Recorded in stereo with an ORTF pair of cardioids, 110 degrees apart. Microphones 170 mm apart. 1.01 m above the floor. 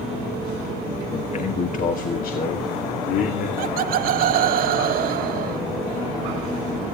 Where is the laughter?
60° right, 0.6 m.